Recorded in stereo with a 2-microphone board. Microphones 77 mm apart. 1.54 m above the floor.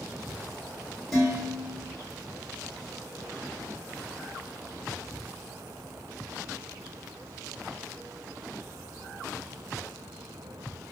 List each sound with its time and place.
1.1 s dishes clattering: centre (ahead or behind), 1.1 m